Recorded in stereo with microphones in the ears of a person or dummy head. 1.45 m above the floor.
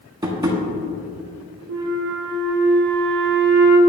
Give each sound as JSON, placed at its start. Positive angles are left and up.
{"t": 0.2, "sound": "tapping", "side_deg": -25, "distance_m": 1.2}
{"t": 1.7, "sound": "a flute", "side_deg": -70, "distance_m": 1.2}